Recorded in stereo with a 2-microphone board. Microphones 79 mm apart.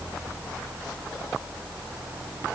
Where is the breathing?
I don't hear breathing.